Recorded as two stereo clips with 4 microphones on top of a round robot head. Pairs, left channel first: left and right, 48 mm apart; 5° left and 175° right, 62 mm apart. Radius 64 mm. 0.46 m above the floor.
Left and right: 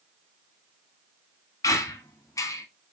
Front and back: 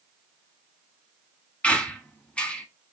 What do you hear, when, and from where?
1.6 s a squeak: 75° left, 0.8 m